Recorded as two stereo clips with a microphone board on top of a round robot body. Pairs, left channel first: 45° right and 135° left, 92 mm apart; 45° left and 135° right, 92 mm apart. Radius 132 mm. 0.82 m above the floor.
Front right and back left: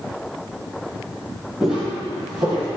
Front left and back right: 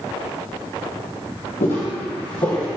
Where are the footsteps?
55° left, 2.0 m; by 2.7 s 100° left, 1.8 m.